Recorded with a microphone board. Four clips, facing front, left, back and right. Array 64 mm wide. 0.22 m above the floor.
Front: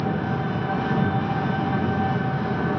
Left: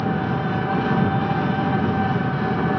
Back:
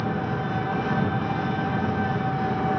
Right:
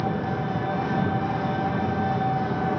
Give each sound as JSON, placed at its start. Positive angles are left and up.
{"t": 0.0, "sound": "an engine running", "azimuth_deg": 85, "distance_m": 1.0}